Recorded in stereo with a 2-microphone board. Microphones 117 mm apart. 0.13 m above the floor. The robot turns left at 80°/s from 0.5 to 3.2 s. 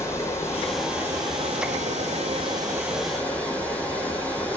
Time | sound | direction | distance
0.0 | running water | 25° left | 0.9 m